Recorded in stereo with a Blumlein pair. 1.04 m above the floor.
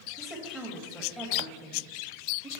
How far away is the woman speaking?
About 1.3 m.